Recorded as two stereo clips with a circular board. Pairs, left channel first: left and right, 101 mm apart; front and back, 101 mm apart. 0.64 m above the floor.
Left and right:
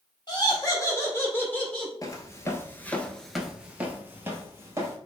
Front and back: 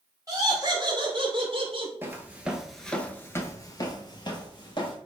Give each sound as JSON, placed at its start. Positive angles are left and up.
{"t": 0.3, "sound": "laughter", "azimuth_deg": 130, "distance_m": 1.7}
{"t": 2.0, "sound": "footsteps", "azimuth_deg": 120, "distance_m": 0.8}